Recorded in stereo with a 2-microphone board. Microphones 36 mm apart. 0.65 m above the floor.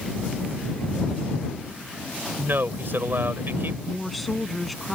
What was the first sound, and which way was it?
A man speaking, 70° right (ahead or behind).